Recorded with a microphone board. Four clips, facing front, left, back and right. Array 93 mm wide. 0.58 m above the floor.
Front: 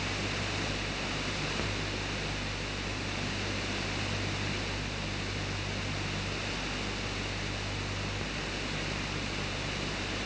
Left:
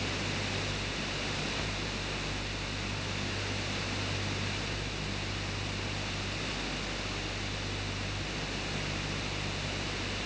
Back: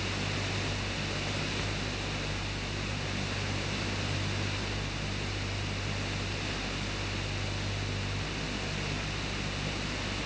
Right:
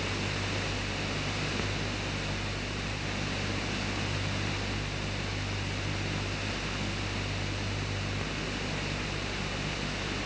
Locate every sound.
Only background noise.